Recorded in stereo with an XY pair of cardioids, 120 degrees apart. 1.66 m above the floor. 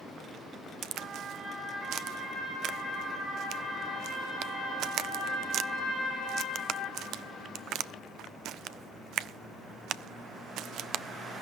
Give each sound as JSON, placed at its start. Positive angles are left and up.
{"t": 0.8, "sound": "a crack", "azimuth_deg": -70, "distance_m": 0.6}